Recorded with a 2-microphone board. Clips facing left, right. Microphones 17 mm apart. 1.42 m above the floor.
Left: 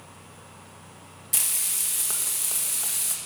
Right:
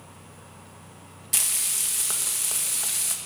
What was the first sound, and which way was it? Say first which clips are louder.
Frying: right 2 dB; 25° right (ahead or behind).